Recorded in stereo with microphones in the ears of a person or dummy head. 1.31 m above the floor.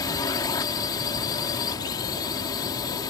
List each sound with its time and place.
0.0 s a drone: 20° left (ahead or behind)